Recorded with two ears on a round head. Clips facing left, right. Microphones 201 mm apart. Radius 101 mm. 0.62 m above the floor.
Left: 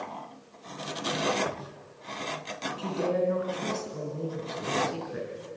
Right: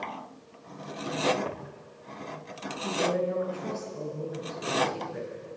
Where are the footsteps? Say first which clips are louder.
Left 1 dB; 15° left (ahead or behind), 3.5 m.